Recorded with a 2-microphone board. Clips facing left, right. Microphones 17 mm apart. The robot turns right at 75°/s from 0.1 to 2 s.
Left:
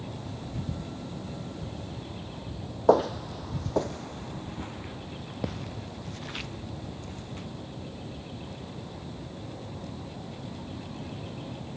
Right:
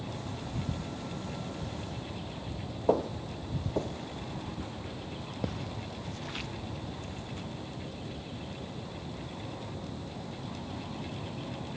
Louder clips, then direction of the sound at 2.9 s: Left 7 dB; 55° left (ahead or behind).